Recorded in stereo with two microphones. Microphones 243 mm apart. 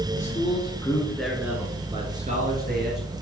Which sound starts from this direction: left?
A man speaking, at 0.1 s.